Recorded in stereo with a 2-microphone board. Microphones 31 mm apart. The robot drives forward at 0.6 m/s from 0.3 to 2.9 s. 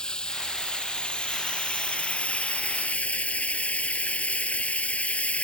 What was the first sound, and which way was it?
Running water, 30° left (ahead or behind).